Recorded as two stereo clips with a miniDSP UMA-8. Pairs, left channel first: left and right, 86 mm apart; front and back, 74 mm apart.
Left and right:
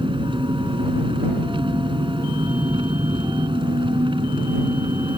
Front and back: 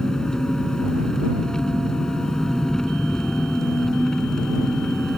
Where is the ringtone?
No ringtone in this recording.